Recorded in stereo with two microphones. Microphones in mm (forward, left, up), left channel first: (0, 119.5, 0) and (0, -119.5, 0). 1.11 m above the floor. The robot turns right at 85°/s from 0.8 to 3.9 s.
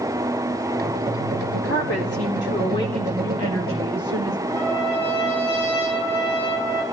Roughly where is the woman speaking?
Ahead left.